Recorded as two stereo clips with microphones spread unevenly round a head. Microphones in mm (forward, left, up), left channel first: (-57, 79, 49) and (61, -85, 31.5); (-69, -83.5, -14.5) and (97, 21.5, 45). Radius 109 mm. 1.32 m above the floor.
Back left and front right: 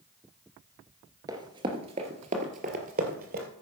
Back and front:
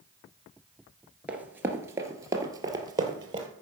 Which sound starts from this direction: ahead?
Running footsteps, at 1.3 s.